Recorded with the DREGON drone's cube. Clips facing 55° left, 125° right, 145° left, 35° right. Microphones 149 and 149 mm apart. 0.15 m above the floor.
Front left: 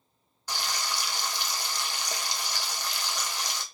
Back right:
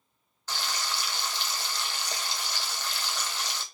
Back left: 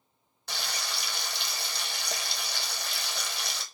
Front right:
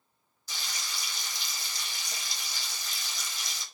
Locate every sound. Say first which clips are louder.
0.5 s frying: front left 1 dB, back left 5 dB; 130° left, 0.9 m